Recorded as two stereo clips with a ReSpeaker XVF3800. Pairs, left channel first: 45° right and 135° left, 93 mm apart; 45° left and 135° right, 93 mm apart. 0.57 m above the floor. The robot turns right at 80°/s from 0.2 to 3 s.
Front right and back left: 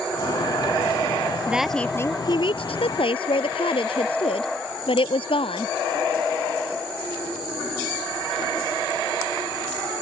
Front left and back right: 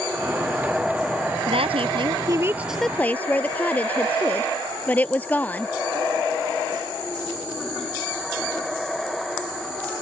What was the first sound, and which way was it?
A woman speaking, 150° right.